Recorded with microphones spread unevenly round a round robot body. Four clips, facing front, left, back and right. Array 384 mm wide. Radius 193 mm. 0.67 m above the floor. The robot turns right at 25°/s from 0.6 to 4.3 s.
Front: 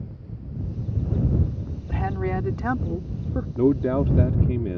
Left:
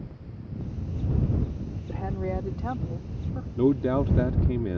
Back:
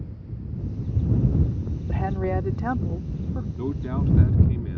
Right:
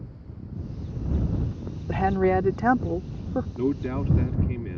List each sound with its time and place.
1.9 s a woman speaking: 80° right; by 3.5 s 40° right
3.6 s a man speaking: 10° left; by 4.8 s 30° left